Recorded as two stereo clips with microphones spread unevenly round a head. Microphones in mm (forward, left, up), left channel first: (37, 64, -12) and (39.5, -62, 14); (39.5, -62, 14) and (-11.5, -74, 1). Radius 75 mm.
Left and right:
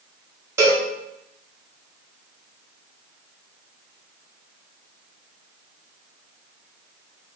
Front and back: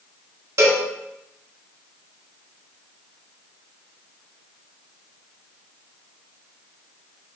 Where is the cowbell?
140° right, 1.2 m.